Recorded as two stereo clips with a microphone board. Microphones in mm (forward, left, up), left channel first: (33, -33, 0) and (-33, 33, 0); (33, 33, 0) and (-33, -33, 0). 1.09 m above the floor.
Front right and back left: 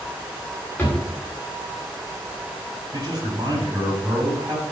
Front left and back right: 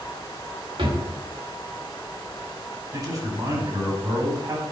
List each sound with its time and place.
0.8 s a drawer: 115° right, 2 m
2.9 s a man speaking: straight behind, 3.5 m